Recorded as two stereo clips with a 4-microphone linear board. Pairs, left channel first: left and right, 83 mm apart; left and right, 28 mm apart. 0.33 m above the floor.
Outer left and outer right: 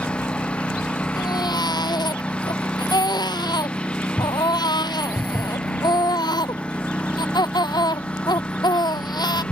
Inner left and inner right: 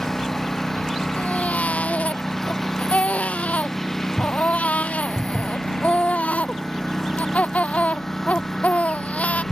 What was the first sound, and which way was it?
A lawn mower, 15° left (ahead or behind).